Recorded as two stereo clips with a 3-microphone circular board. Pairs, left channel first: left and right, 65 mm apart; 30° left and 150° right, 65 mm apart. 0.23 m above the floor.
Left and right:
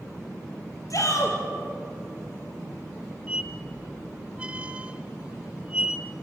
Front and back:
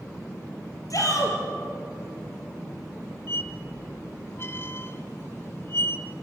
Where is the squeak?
20° right, 1.1 m.